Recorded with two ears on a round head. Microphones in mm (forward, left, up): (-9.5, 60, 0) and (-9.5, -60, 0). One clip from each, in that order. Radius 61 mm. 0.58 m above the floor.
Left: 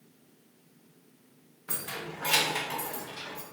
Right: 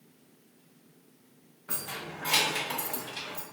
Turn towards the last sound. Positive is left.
turn(degrees=-60)  # may be behind; listen again after turning